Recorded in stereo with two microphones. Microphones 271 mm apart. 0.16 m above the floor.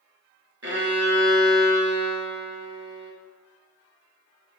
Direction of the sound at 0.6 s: 60° right (ahead or behind).